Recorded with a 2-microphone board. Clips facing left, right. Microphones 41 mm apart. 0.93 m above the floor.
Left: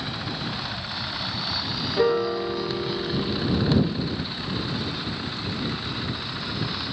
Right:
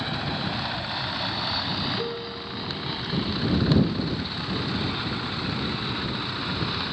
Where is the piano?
50° left (ahead or behind).